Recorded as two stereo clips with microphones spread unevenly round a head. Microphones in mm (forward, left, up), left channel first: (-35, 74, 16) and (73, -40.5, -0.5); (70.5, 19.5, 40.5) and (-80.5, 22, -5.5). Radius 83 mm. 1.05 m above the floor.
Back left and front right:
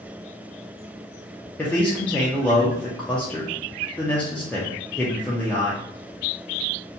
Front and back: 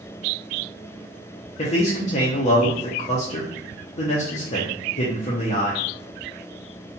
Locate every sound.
1.6 s a man speaking: 50° left, 0.6 m